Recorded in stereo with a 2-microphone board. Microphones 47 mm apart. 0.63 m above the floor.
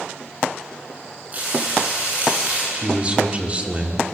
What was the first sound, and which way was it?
Frying, 30° right (ahead or behind).